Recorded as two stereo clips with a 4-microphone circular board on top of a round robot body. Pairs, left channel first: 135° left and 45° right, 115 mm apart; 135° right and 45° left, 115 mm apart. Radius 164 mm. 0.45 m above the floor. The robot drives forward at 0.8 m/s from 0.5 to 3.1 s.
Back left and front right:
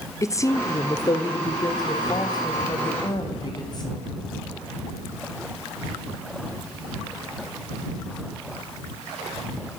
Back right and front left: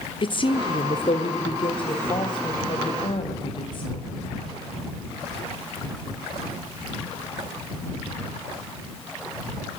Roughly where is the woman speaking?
Behind.